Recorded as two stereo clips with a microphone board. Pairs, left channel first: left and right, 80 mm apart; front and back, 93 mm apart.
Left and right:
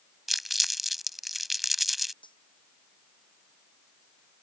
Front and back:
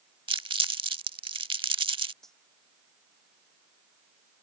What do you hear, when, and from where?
0.3 s crumpling: straight behind
2.2 s cutlery clinking: 85° left